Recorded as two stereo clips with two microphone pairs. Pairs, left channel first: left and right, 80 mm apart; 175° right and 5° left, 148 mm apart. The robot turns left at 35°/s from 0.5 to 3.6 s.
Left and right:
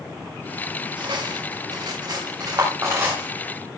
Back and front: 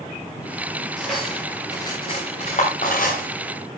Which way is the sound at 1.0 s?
85° right.